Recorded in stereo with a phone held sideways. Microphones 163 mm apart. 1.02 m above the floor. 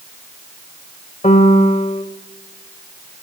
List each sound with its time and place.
1.2 s a piano: 45° left (ahead or behind), 1.2 m